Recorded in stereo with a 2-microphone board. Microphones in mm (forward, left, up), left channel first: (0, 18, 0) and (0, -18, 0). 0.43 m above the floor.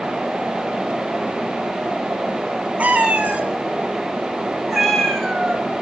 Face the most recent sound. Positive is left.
turn(degrees=20)  # may be behind; listen again after turning